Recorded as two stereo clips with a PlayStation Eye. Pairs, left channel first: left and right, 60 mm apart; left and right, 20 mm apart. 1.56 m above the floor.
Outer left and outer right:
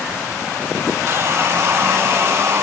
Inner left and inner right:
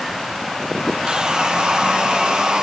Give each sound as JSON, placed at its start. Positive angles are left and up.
{"t": 1.1, "sound": "sawing", "side_deg": -50}